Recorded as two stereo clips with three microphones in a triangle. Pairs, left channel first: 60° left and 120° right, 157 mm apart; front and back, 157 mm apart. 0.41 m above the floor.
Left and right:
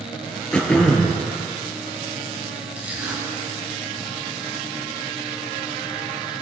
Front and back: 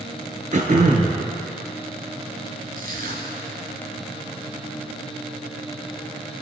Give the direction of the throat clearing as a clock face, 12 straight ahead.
7 o'clock.